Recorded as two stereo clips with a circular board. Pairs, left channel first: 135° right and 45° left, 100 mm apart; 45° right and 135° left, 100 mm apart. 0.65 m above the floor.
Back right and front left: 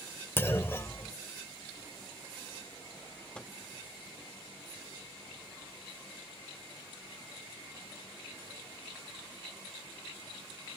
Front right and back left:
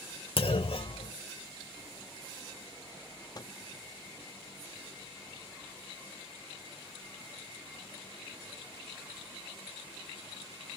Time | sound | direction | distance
0.4 | a clunk | 70° right | 0.8 m
3.4 | a microwave | 60° right | 0.7 m